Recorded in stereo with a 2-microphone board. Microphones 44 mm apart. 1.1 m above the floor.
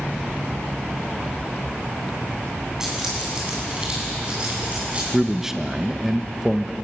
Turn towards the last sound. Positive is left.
turn(degrees=-5)  # may be behind; listen again after turning